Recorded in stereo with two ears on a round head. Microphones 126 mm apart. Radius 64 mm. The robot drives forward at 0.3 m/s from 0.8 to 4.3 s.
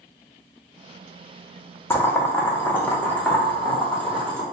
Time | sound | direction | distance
1.9 | boiling | 15° left (ahead or behind) | 0.5 m